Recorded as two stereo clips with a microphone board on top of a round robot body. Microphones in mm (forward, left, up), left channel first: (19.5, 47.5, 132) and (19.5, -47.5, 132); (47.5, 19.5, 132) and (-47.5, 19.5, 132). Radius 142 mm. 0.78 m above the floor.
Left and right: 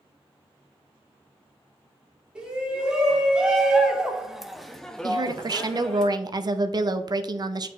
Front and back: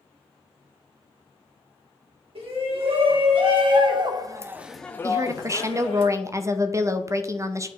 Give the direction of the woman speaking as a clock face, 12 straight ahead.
4 o'clock.